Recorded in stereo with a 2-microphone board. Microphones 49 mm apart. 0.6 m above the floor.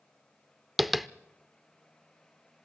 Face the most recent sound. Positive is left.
turn(degrees=0)  # may be behind; listen again after turning